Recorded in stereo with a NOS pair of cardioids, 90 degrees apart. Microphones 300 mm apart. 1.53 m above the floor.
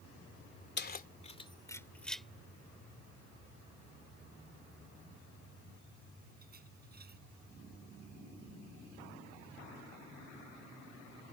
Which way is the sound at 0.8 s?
35° left.